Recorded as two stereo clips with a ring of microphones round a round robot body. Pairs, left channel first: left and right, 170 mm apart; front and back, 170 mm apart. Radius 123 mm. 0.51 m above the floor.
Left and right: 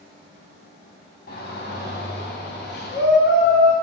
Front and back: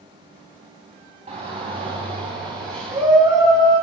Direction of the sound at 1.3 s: 135° left.